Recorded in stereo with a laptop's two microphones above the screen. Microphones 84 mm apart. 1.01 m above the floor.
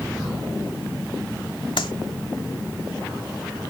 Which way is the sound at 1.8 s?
80° left.